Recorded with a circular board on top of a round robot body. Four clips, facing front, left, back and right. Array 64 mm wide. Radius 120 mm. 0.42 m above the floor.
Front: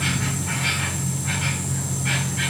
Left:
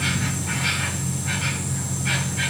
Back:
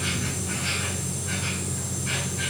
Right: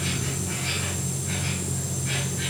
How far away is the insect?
About 7.5 m.